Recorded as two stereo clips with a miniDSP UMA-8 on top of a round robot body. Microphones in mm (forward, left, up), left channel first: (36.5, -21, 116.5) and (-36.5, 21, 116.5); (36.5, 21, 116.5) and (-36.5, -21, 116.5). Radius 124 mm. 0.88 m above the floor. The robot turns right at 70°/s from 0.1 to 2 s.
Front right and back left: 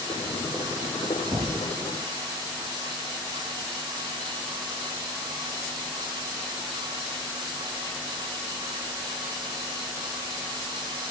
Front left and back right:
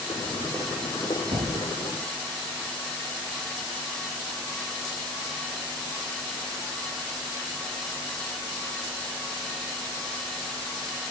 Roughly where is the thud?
Behind.